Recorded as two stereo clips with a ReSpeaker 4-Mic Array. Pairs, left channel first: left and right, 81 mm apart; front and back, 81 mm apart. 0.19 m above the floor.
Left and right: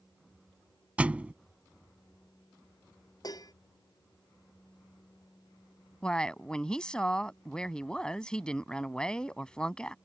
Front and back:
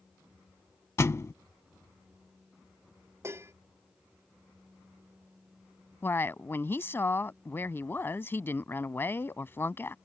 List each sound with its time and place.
1.0 s a thud: 25° right
3.2 s dishes clattering: 125° left
6.0 s a woman speaking: 20° left